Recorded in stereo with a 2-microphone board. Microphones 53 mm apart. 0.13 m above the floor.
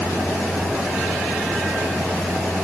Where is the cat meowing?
I don't hear a cat meowing.